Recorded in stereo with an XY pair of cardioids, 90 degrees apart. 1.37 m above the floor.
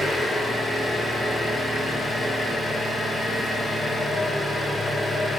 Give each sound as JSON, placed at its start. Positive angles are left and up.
{"t": 0.0, "sound": "an engine running", "azimuth_deg": 30, "distance_m": 3.0}